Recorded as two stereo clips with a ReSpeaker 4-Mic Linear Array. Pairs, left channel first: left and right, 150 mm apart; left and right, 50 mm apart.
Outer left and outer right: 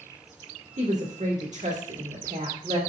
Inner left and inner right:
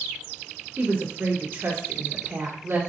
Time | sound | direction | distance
0.8 | a woman speaking | 55° right (ahead or behind) | 1.6 m